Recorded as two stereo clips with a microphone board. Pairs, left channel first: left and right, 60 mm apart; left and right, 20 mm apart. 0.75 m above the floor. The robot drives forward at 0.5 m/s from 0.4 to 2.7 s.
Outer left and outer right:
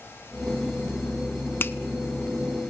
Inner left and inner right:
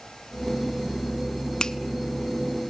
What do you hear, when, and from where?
1.6 s a finger snap: 40° left (ahead or behind), 0.7 m; by 1.8 s 35° left (ahead or behind), 0.8 m